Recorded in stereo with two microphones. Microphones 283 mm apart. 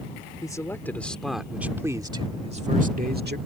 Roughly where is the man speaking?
Centre.